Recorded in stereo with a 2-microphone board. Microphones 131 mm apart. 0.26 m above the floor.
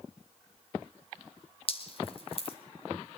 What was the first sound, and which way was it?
Dripping, 45° left (ahead or behind).